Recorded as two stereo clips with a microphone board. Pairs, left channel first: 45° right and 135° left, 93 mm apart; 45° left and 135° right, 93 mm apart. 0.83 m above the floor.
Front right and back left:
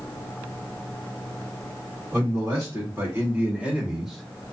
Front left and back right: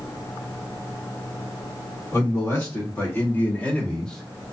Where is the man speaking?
90° left, 1.5 m; by 4.5 s 75° right, 0.9 m.